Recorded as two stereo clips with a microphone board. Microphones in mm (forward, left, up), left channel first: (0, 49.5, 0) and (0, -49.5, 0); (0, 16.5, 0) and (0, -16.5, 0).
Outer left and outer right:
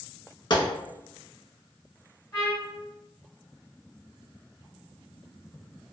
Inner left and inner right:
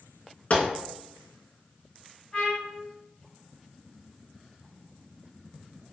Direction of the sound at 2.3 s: 35° left (ahead or behind).